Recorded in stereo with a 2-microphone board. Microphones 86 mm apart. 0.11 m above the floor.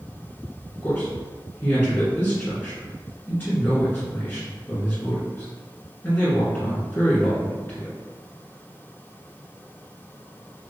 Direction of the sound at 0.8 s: 25° left (ahead or behind).